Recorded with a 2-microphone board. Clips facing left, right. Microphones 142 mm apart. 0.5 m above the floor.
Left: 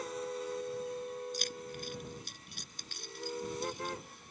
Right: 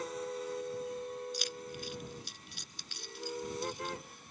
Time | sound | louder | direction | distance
1.3 | keys jangling | even | 50° left (ahead or behind) | ?